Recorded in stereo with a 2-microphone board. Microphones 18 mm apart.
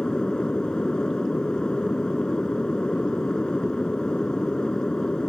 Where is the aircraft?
55° left (ahead or behind).